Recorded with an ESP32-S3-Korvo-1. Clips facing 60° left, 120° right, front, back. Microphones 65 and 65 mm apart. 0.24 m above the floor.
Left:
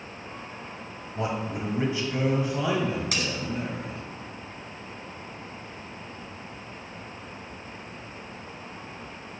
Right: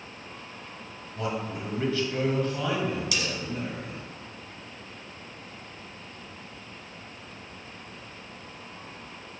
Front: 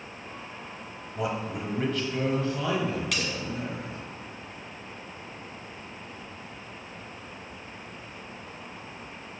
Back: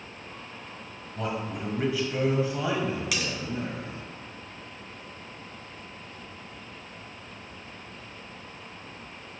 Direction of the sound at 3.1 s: 95° left.